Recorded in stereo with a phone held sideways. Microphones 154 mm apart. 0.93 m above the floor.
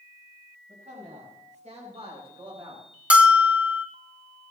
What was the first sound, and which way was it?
A man speaking, 55° right (ahead or behind).